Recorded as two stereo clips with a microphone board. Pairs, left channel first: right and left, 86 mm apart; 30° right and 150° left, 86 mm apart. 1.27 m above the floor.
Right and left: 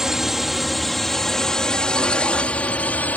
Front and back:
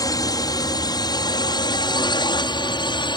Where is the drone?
5° left; by 3.2 s 20° right.